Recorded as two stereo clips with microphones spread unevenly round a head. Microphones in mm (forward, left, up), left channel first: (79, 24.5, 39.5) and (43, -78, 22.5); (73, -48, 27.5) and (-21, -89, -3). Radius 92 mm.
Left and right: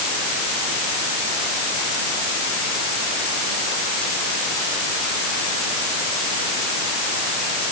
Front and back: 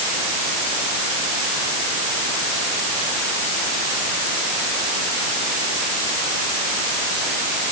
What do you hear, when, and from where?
Only background noise.